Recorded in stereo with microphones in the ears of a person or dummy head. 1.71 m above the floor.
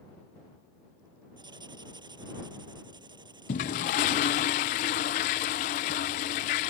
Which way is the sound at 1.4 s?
20° right (ahead or behind).